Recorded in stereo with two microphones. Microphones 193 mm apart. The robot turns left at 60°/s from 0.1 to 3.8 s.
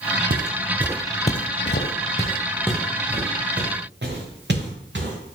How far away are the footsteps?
About 0.8 m.